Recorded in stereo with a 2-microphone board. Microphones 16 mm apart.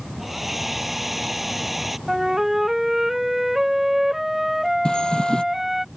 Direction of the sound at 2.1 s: 20° right (ahead or behind).